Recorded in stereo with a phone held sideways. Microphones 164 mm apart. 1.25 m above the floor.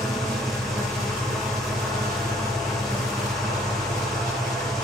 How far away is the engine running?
About 4.5 m.